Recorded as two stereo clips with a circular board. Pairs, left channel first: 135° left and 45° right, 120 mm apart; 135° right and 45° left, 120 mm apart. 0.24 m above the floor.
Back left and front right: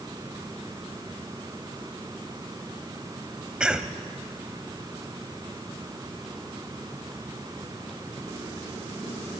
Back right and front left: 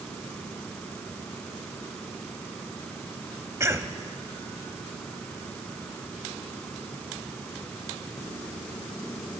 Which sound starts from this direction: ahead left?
A cough, at 3.6 s.